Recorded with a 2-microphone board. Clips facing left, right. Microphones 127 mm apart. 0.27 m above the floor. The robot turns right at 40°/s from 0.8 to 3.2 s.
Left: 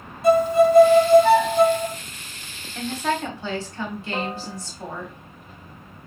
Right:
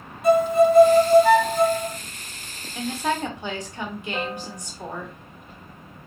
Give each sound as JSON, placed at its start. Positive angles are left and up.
{"t": 0.2, "sound": "a violin", "azimuth_deg": 35, "distance_m": 2.0}
{"t": 2.8, "sound": "a woman speaking", "side_deg": -5, "distance_m": 1.2}
{"t": 4.1, "sound": "a piano", "side_deg": 70, "distance_m": 0.9}